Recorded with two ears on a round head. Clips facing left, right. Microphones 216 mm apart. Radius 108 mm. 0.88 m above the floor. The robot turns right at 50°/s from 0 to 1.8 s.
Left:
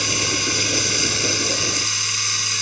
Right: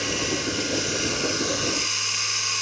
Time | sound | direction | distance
0.0 | running water | 60° left | 3 m